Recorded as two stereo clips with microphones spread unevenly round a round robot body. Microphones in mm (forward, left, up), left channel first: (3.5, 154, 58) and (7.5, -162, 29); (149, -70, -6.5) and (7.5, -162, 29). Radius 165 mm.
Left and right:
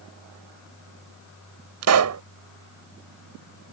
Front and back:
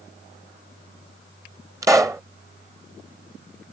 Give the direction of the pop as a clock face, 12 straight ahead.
2 o'clock.